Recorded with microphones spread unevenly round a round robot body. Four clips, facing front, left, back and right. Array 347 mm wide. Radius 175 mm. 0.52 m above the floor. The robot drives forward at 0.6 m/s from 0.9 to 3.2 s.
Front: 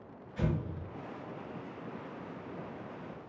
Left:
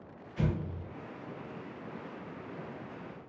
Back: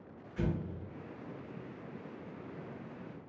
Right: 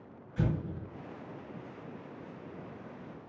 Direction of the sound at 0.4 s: 85° right.